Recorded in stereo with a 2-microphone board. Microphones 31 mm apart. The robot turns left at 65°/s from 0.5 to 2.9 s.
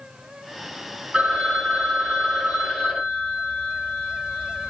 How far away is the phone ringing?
About 1.6 m.